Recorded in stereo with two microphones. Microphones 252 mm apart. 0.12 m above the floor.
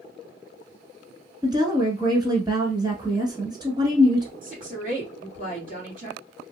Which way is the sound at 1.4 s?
15° right (ahead or behind).